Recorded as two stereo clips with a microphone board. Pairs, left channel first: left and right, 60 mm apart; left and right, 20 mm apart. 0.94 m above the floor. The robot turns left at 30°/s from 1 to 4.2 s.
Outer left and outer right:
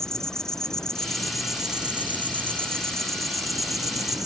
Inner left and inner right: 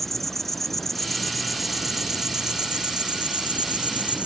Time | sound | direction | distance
0.0 | an insect | 10° left | ?